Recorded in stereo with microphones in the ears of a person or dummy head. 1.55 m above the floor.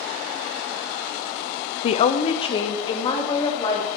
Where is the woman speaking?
40° left (ahead or behind), 0.5 m; by 4.0 s 30° left (ahead or behind), 3.5 m.